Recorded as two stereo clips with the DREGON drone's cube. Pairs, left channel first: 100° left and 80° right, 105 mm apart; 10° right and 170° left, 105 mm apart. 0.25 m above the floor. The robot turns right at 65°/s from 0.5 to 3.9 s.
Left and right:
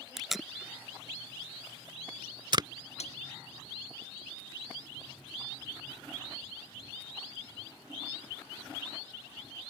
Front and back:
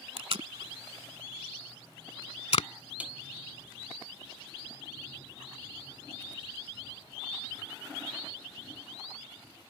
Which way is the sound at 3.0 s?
95° left.